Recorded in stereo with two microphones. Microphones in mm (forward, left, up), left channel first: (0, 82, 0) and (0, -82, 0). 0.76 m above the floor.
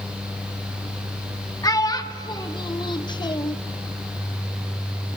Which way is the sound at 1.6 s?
20° left (ahead or behind).